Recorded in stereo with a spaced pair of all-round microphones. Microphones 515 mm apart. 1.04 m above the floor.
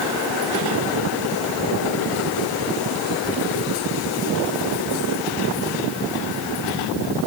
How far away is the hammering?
No hammering in this recording.